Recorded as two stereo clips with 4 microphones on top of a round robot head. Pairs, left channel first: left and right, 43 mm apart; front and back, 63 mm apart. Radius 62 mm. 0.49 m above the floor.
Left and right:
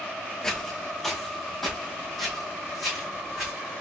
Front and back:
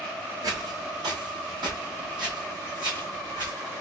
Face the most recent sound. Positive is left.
turn(degrees=180)